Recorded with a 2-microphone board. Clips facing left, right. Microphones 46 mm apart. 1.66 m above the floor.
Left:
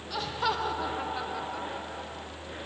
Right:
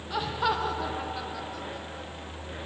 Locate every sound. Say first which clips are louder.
0.1 s laughter: right 2 dB; 15° right (ahead or behind), 1.1 m; by 2.3 s 30° left (ahead or behind), 1.5 m